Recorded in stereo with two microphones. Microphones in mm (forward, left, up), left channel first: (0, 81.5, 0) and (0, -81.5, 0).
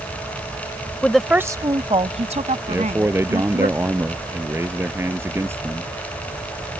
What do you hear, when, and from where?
1.0 s a woman speaking: 10° left (ahead or behind); by 3.7 s 55° right (ahead or behind)
2.7 s a man speaking: 15° right (ahead or behind)